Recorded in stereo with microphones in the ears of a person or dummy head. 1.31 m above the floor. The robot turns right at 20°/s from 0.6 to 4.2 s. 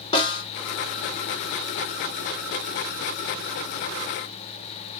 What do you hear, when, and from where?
0.1 s a snare drum: 25° left (ahead or behind), 0.9 m